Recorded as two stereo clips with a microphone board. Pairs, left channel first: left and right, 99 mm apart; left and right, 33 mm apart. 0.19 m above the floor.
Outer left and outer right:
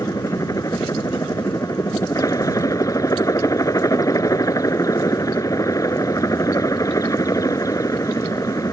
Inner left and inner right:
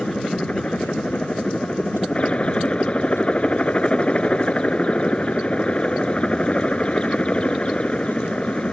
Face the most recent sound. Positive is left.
turn(degrees=35)  # may be behind; listen again after turning